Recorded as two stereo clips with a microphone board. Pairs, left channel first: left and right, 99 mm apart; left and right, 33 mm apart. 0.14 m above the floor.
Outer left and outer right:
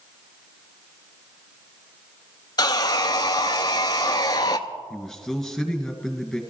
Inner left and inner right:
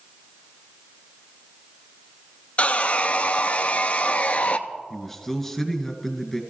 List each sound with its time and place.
2.6 s sawing: 45° left (ahead or behind), 0.7 m
4.9 s a man speaking: 5° left (ahead or behind), 1.9 m